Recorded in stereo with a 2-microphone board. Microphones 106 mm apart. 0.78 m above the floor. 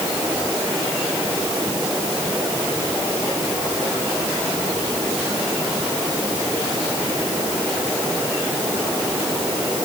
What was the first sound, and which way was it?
Only background noise.